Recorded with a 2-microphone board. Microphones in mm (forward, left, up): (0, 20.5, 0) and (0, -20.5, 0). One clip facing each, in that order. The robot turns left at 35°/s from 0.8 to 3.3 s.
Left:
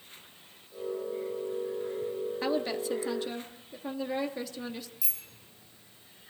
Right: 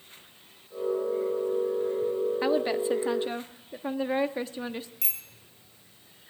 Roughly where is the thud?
No thud in this recording.